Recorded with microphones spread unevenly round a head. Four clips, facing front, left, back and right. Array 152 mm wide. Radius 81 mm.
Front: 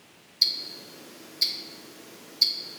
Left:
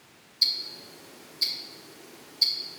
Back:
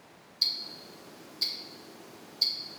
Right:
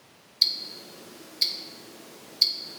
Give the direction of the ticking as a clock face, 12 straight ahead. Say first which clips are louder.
Right 1 dB, front 4 dB; 2 o'clock.